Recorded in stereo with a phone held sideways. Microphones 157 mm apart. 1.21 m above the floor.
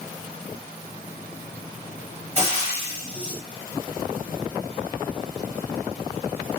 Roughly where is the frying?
Right.